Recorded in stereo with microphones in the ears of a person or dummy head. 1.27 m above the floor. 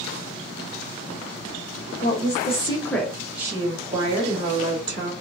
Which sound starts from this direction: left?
A woman speaking, at 2.0 s.